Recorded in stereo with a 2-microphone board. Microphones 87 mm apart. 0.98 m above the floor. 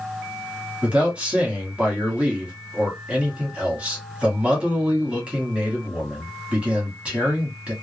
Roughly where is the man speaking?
Centre.